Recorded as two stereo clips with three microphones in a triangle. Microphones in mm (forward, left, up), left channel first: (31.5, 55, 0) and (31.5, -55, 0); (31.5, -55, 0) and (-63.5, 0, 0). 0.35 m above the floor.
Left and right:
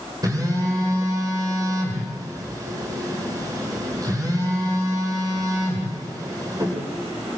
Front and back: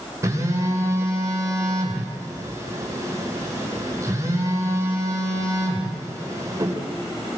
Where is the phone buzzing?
150° right, 9 m.